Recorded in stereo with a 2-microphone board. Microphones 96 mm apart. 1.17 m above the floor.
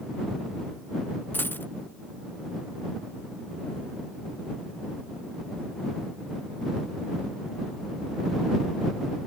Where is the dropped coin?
20° left (ahead or behind).